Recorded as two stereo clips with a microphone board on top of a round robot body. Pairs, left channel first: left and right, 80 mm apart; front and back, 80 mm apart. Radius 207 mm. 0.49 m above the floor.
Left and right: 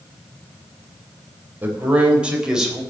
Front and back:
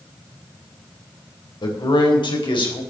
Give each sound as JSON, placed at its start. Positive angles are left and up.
{"t": 1.6, "sound": "a man speaking", "azimuth_deg": -20, "distance_m": 3.5}